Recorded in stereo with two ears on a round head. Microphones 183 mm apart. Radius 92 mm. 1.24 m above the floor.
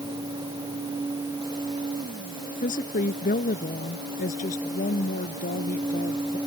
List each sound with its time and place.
2.6 s a woman speaking: 40° left (ahead or behind)